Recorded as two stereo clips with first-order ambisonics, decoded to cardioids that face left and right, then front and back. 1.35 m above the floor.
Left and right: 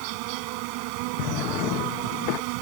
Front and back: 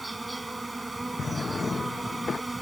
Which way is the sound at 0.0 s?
95° right.